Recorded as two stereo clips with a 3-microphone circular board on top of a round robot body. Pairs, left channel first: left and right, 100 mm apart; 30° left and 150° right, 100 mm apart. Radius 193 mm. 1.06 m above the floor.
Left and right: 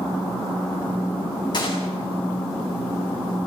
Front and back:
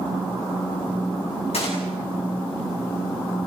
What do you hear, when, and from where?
1.5 s a gunshot: 45° left, 7 m